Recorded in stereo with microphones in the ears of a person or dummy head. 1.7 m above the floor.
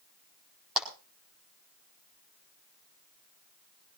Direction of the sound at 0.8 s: Centre (ahead or behind).